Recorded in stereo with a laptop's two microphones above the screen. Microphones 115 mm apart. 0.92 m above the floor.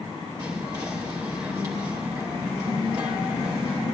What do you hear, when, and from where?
0.4 s whispering: 35° right (ahead or behind), 0.9 m